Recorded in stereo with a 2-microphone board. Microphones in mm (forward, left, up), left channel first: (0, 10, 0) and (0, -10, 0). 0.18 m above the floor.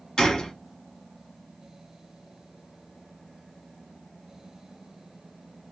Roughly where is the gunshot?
Left.